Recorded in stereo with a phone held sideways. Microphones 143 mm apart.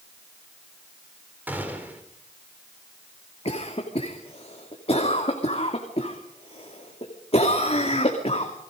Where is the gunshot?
10° right (ahead or behind), 4 m.